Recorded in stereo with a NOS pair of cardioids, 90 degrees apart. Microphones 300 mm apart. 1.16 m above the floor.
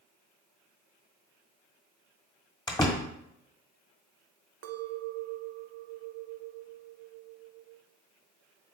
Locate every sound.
2.7 s a door slam: 15° left, 1.5 m
4.6 s a clink: 55° right, 0.6 m